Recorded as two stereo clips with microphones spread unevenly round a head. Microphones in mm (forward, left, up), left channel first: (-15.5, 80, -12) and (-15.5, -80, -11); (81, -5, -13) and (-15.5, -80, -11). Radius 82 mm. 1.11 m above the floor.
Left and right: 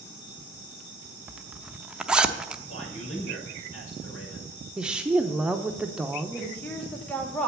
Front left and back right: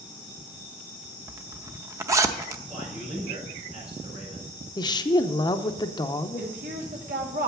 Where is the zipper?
165° right, 0.6 m.